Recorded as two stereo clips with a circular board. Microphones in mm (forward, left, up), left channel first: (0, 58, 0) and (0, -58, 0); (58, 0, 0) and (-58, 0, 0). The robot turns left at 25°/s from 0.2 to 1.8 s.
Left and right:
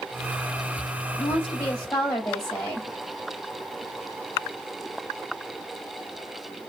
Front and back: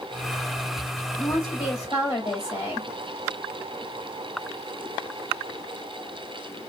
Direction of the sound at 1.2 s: 45° left.